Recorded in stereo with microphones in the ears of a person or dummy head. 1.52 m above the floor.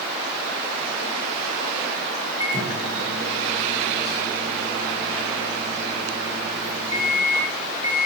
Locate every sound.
2.4 s a microwave: 25° left (ahead or behind), 2.5 m